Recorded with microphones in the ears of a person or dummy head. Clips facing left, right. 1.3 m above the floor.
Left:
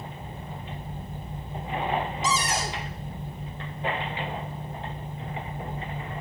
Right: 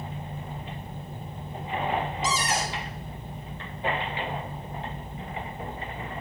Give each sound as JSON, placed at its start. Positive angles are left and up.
{"t": 2.2, "sound": "a cupboard door", "side_deg": 80, "distance_m": 3.5}